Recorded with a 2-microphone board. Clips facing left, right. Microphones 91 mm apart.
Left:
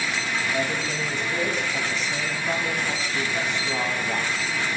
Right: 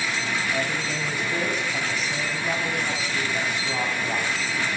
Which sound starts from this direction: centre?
A man speaking, at 0.5 s.